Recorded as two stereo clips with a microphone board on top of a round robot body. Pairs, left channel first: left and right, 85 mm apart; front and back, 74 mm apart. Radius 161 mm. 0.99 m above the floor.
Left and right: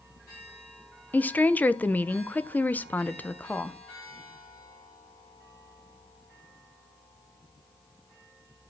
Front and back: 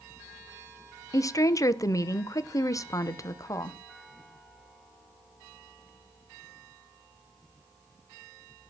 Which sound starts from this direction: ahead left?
A woman speaking, at 1.1 s.